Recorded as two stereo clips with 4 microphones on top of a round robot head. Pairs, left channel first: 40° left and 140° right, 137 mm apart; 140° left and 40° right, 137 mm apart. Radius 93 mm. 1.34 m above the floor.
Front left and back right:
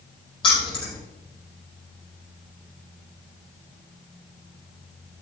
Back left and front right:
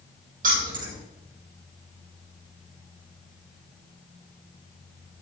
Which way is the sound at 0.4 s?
15° right.